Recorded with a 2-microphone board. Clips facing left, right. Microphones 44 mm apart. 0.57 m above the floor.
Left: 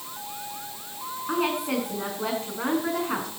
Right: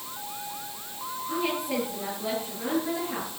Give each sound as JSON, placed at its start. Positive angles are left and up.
{"t": 1.3, "sound": "a woman speaking", "side_deg": 80, "distance_m": 6.5}